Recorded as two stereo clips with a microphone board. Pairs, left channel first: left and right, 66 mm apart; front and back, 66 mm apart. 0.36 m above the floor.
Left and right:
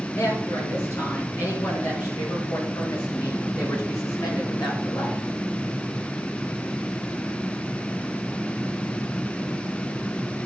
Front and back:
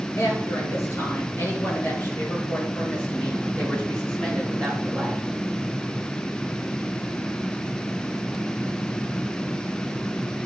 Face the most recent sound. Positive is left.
turn(degrees=90)